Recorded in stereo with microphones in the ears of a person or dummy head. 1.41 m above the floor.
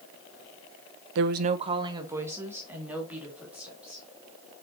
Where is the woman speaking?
65° right (ahead or behind), 0.5 m; by 4.0 s 5° right (ahead or behind), 4 m.